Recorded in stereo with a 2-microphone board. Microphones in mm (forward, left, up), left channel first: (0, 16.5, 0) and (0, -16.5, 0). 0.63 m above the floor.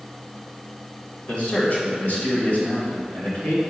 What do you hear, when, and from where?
1.3 s a man speaking: 40° left (ahead or behind), 2 m; by 3.6 s 65° left (ahead or behind), 3 m